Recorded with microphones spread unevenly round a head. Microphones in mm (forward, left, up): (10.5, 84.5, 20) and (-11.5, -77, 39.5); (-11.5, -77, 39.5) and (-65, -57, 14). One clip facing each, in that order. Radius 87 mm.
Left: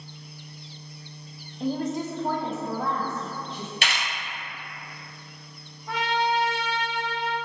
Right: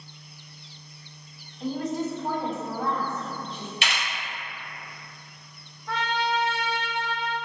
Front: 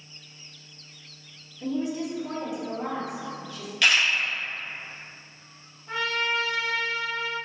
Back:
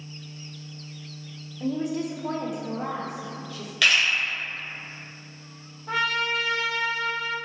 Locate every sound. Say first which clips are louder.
1.6 s a woman speaking: left 1 dB, back 1 dB; 115° left, 0.7 m; by 3.7 s 155° right, 3 m
3.8 s a camera shutter: even, even; 135° left, 1.8 m
5.9 s a trumpet: left 2 dB, back 2 dB; 165° left, 0.7 m